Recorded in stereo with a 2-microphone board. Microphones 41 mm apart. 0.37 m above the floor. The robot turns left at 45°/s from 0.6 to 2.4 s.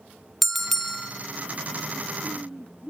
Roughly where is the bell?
Centre.